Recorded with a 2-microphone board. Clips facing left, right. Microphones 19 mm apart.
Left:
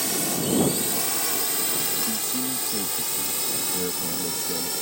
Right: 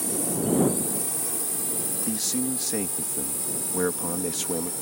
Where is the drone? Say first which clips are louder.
Left 2 dB; 65° left (ahead or behind).